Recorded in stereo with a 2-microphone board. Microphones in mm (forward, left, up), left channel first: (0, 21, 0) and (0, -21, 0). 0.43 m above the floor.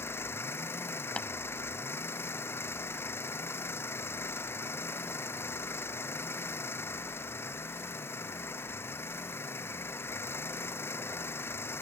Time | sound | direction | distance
0.0 | an engine running | 75° left (ahead or behind) | ?
1.2 | tapping | 30° left (ahead or behind) | ?